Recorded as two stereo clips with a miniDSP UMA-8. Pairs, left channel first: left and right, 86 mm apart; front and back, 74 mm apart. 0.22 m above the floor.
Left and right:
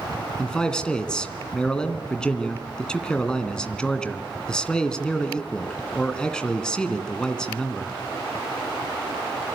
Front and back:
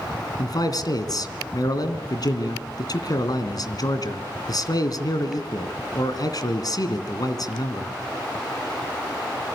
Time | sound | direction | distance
0.4 | a man speaking | 10° left | 2.5 m